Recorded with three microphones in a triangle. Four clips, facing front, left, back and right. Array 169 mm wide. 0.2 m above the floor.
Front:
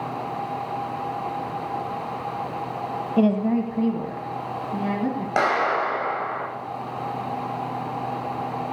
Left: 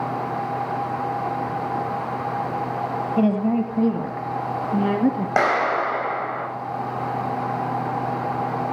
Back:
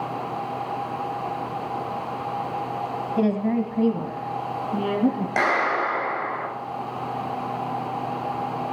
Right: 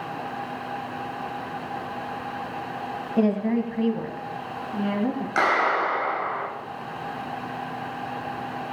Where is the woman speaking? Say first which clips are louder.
Left 2 dB, front 2 dB; 10° left, 1.0 m; by 5.3 s 110° left, 2 m.